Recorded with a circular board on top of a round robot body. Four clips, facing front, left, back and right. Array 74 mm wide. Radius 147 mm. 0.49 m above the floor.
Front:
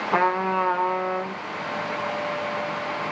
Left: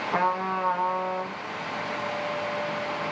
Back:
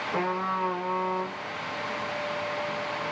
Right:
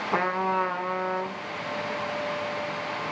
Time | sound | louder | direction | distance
0.1 | a trumpet | right 1 dB, front 7 dB | 20° right | 1.0 m